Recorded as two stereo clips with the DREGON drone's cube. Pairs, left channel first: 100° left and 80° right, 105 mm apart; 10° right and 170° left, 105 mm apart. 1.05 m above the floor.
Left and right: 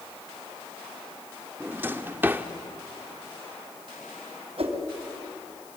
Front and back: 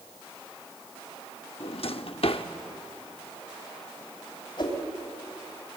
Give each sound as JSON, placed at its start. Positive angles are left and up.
{"t": 1.6, "sound": "a drawer", "azimuth_deg": -10, "distance_m": 1.0}
{"t": 4.6, "sound": "a whoosh", "azimuth_deg": -50, "distance_m": 3.5}